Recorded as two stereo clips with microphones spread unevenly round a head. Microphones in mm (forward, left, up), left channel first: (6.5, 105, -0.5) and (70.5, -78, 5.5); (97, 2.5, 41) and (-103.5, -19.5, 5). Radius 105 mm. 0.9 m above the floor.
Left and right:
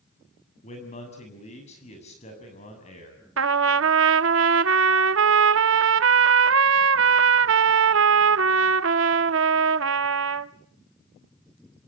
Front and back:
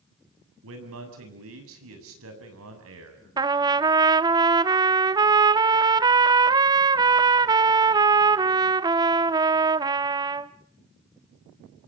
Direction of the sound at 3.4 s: 100° right.